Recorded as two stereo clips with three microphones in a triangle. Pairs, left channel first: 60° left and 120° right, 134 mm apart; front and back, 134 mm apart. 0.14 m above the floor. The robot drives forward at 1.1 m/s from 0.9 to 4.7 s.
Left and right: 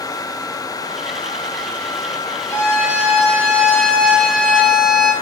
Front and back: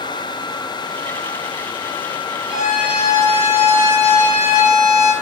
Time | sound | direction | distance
2.5 | a violin | 95° left | 5.5 m